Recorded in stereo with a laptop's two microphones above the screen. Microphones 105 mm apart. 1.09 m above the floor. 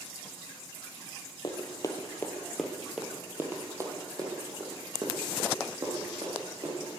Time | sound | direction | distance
1.4 | running footsteps | 40° left (ahead or behind) | 1.4 m